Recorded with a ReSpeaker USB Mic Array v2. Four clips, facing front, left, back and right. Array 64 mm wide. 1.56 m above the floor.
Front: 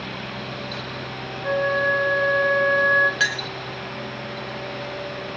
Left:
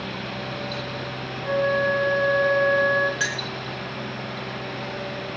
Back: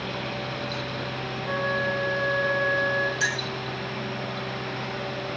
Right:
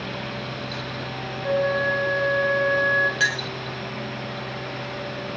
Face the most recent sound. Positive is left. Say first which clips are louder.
# right 4 dB, front 4 dB
turn(degrees=-10)